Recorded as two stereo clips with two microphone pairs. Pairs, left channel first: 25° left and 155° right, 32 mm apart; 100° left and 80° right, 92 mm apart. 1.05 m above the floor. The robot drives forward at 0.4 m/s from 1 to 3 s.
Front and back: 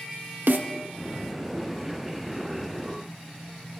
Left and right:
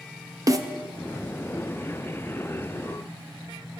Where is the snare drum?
130° right, 0.8 m.